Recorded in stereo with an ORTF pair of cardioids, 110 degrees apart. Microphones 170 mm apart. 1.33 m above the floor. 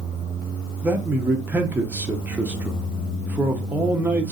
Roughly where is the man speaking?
Ahead.